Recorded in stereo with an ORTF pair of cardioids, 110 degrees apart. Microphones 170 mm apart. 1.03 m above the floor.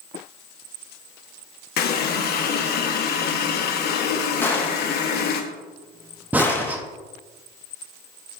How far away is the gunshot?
About 1.2 m.